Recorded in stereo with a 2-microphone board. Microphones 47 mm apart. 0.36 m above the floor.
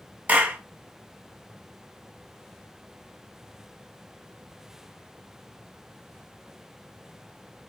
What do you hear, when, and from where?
0.3 s a clap: 35° right (ahead or behind), 2 m